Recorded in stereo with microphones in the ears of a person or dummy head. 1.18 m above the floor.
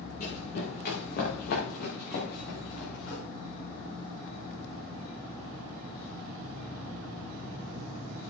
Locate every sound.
0.2 s running footsteps: 50° left (ahead or behind), 6 m; by 3.2 s 70° left (ahead or behind), 7.5 m